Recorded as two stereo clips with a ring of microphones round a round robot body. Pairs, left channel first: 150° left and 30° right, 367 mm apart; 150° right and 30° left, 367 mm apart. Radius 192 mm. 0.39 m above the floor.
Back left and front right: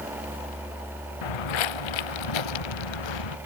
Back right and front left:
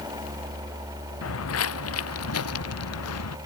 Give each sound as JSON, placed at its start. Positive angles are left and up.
{"t": 1.2, "sound": "footsteps", "azimuth_deg": 155}